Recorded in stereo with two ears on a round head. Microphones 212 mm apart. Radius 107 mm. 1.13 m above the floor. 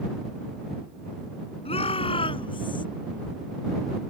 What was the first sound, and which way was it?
A shout, 25° left (ahead or behind).